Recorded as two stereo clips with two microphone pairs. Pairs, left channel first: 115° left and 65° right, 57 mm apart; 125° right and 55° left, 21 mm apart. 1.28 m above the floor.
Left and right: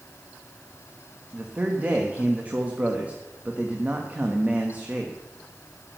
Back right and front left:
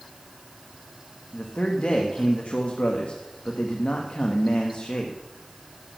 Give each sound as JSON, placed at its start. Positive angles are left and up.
{"t": 1.3, "sound": "a man speaking", "azimuth_deg": -130, "distance_m": 1.3}